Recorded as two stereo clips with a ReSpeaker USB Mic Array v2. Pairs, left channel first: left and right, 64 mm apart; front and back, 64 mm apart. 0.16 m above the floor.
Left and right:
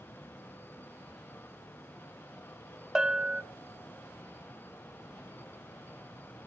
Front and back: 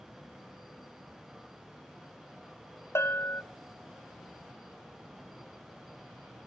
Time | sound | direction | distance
3.0 | a bell | 15° right | 0.6 m